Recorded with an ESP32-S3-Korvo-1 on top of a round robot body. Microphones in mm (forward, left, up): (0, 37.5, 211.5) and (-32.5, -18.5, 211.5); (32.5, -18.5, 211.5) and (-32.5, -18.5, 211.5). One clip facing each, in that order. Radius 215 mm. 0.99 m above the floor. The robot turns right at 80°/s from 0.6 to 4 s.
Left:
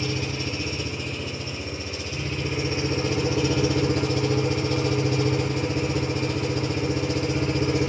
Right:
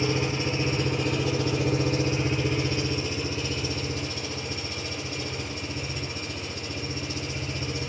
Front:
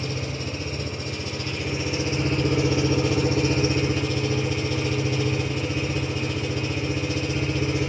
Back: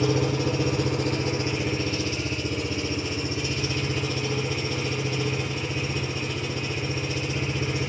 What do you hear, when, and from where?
0.0 s an engine running: 175° left, 0.9 m; by 7.9 s 85° left, 0.9 m